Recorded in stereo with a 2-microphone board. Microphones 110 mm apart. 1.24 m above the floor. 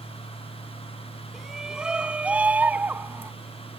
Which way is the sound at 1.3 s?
5° right (ahead or behind).